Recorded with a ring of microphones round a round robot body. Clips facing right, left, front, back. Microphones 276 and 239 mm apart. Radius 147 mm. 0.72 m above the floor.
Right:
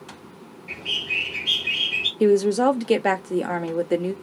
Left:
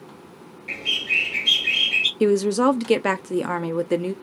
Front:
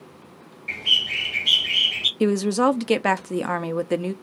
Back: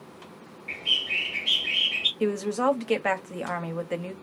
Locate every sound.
0.7 s a bird: 30° left, 2.5 m
2.2 s a woman speaking: 15° left, 0.8 m